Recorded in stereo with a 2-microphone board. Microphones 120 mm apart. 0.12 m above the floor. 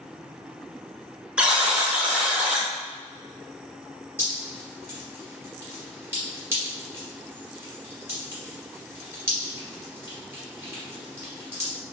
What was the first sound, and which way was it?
A buzzer, 10° right (ahead or behind).